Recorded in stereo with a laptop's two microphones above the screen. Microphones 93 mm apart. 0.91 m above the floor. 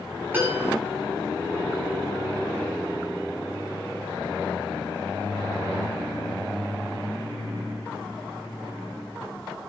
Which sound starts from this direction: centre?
A piano, at 0.3 s.